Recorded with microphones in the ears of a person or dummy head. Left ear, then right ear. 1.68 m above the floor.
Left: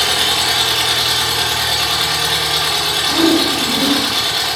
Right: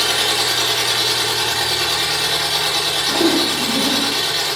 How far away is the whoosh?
About 0.6 m.